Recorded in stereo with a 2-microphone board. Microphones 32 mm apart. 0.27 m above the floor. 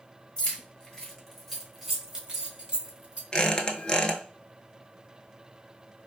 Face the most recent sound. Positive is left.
turn(degrees=25)  # may be behind; listen again after turning